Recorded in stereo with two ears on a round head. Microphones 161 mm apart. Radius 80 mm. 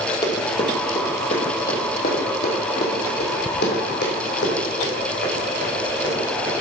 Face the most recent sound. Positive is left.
turn(degrees=75)  # may be behind; listen again after turning